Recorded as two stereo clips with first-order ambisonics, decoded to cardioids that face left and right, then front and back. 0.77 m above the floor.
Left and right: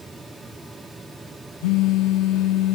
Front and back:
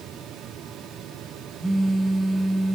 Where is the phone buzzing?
95° left, 0.6 m.